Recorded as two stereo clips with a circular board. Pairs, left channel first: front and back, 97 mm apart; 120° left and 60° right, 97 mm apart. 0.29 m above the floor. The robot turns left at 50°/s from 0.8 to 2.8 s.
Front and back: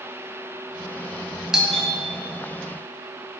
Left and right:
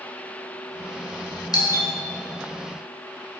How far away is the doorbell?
About 3 m.